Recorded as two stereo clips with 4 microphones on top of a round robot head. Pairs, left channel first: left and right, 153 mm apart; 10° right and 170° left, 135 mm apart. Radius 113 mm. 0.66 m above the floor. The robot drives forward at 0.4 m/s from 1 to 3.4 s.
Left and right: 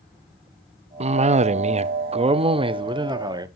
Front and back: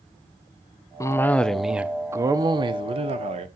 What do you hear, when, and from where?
1.0 s a cough: 70° right, 0.6 m; by 3.5 s 155° right, 1.0 m